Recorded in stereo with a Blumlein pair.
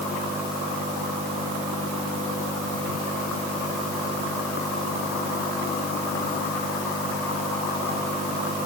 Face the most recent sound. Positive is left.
No sound to turn to.